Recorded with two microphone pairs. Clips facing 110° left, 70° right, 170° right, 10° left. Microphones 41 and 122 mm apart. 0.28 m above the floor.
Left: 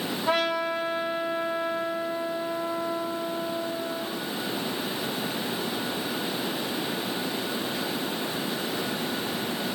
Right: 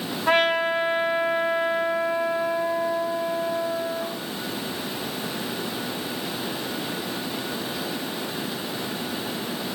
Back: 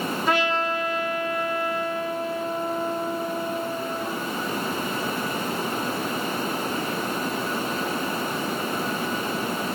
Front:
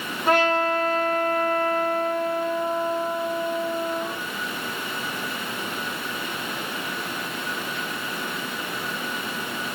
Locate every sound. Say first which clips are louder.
0.3 s a trumpet: right 6 dB, front 5 dB; 35° right, 1.2 m